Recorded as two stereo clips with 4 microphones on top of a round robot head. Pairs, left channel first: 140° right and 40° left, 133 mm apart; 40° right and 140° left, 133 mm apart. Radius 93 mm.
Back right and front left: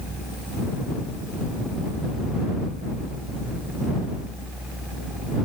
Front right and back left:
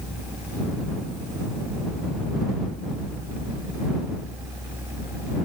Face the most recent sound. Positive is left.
No sound to turn to.